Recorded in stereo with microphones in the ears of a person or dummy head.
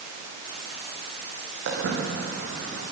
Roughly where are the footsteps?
Right.